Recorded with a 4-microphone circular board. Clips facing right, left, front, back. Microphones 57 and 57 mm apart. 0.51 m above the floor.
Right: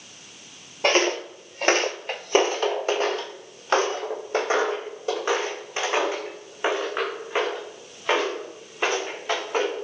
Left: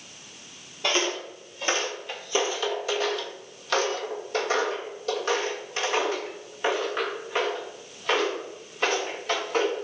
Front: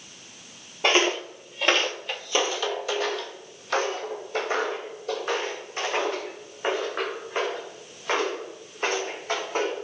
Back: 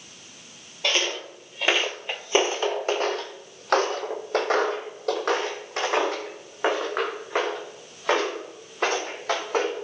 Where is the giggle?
No giggle in this recording.